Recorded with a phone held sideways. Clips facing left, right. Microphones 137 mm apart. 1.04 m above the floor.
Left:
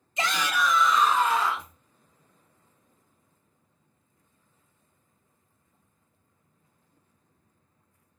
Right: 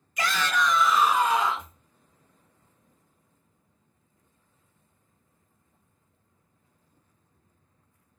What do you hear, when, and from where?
0.2 s a shout: 25° left (ahead or behind), 0.7 m; by 1.7 s 25° right (ahead or behind), 1.1 m